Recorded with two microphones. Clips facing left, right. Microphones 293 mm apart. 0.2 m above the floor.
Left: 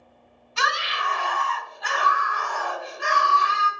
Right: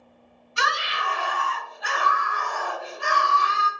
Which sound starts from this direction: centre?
A scream, at 0.6 s.